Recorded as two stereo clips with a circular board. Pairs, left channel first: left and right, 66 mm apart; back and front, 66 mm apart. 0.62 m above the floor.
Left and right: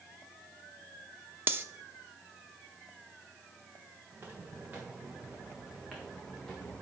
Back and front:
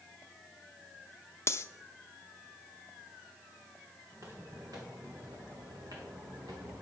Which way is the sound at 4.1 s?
35° right.